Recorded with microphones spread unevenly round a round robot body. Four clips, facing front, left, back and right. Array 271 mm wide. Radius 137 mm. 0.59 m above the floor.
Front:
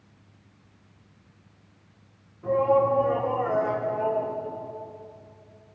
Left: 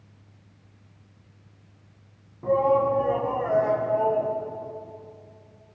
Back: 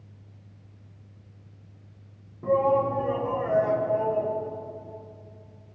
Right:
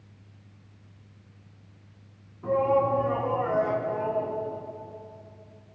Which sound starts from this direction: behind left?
A shout, at 2.4 s.